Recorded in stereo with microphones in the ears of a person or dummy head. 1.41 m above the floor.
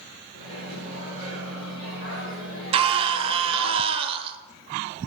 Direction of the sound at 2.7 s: 30° right (ahead or behind).